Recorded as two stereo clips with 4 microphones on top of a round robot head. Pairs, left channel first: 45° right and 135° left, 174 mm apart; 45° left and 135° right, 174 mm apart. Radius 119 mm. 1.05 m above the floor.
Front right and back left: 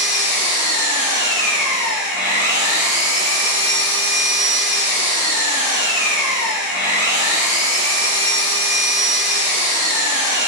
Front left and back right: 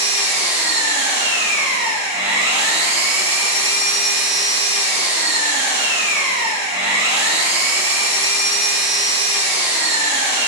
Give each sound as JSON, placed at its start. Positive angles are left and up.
{"t": 0.0, "sound": "an engine running", "azimuth_deg": -170, "distance_m": 1.5}